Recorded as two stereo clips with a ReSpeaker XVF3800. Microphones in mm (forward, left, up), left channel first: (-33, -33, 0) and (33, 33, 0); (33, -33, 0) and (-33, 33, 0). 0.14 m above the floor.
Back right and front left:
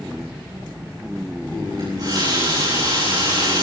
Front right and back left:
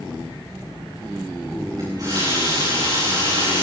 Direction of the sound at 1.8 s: 90° left.